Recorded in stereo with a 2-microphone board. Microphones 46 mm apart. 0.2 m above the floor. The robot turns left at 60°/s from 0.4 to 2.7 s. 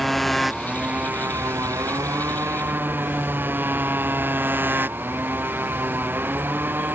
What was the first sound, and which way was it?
A motorcycle, 5° left.